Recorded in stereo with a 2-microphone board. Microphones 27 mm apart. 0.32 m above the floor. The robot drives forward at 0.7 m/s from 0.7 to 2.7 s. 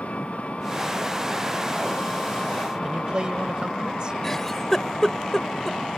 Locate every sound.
0.0 s an engine running: 55° left (ahead or behind); by 6.0 s 50° left (ahead or behind)
2.8 s a man speaking: 35° right (ahead or behind)
4.2 s a giggle: 10° left (ahead or behind)